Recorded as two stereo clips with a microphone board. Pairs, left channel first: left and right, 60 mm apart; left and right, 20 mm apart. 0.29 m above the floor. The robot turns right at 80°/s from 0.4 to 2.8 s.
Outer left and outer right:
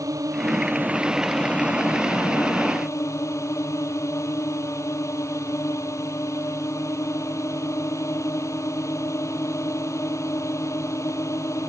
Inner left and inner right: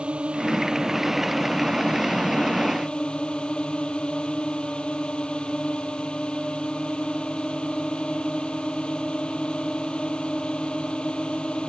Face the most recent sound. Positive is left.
turn(degrees=125)